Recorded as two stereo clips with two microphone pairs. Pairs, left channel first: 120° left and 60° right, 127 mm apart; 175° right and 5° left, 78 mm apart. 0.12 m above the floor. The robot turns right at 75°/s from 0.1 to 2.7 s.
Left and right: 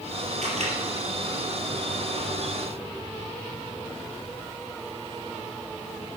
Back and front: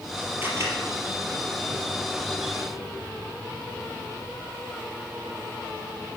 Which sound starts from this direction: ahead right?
A camera shutter, at 0.4 s.